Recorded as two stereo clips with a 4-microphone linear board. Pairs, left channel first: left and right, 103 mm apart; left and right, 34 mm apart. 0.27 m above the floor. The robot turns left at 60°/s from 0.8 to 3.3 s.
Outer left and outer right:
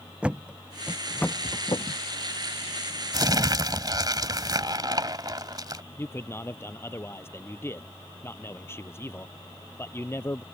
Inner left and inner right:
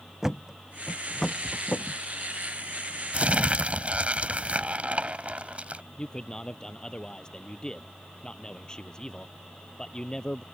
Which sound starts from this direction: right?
Crumpling, at 3.1 s.